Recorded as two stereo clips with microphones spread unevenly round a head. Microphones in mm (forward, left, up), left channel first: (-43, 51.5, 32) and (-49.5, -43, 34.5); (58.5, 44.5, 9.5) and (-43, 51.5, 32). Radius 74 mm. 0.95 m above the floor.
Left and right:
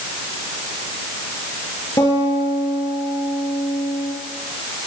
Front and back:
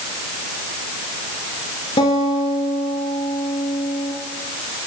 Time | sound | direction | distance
2.0 | a guitar | 20° left | 7 m